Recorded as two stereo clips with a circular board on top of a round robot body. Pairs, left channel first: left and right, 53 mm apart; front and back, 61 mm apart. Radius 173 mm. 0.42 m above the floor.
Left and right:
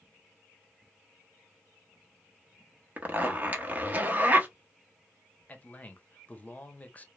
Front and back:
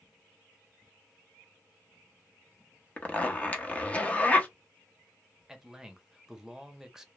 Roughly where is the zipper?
Ahead right.